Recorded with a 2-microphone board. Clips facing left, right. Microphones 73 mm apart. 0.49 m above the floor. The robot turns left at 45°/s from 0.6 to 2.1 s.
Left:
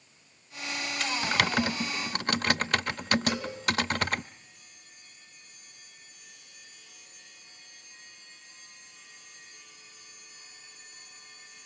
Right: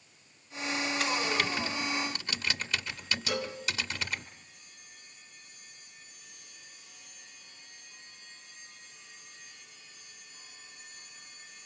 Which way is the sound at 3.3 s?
80° right.